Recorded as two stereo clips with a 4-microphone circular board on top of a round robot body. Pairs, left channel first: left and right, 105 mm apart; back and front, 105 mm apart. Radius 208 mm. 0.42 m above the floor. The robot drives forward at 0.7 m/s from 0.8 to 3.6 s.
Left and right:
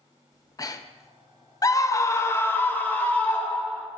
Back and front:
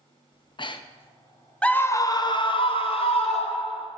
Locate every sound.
0.3 s breathing: 145° left, 0.6 m; by 1.1 s 155° left, 0.8 m
1.6 s a scream: 105° left, 0.8 m; by 3.9 s 165° left, 1.7 m